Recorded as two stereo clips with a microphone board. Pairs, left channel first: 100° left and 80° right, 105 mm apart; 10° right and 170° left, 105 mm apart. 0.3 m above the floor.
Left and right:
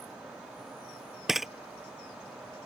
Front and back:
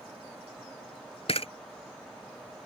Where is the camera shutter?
10° left.